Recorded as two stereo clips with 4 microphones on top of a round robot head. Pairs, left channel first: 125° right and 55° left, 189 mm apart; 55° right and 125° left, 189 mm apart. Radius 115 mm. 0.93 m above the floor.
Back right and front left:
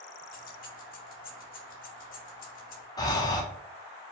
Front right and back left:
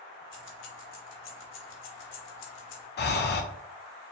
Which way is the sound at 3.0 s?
60° right.